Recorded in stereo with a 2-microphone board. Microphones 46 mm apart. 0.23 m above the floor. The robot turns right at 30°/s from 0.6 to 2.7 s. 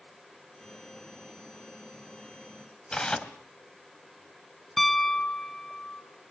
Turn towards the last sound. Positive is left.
turn(degrees=5)  # may be behind; listen again after turning